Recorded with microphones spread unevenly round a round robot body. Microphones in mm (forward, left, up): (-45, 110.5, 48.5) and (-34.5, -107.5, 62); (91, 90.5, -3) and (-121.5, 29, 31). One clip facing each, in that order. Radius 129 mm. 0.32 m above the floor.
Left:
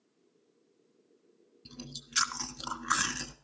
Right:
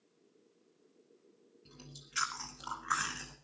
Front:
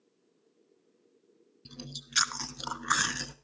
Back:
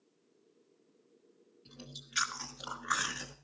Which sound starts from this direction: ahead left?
Chewing, at 1.6 s.